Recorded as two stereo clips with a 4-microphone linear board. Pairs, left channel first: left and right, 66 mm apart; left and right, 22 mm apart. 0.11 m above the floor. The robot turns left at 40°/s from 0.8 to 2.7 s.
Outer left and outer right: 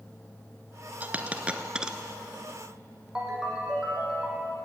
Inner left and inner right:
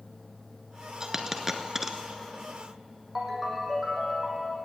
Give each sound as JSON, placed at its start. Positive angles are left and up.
{"t": 1.0, "sound": "a dropped coin", "side_deg": -25, "distance_m": 0.8}
{"t": 3.1, "sound": "a ringtone", "side_deg": -10, "distance_m": 3.0}